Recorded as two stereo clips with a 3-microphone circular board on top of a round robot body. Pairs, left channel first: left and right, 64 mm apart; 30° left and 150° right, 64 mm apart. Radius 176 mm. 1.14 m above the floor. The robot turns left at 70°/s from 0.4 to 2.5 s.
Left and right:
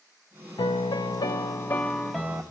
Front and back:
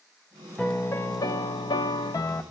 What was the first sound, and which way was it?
A piano, 110° left.